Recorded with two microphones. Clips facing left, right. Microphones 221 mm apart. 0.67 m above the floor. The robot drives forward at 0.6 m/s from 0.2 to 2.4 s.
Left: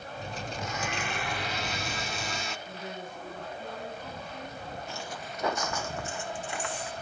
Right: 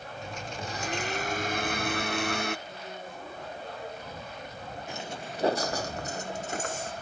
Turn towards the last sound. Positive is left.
turn(degrees=-45)  # may be behind; listen again after turning